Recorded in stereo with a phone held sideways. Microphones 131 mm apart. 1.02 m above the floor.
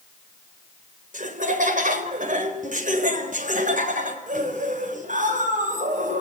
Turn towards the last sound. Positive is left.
turn(degrees=-80)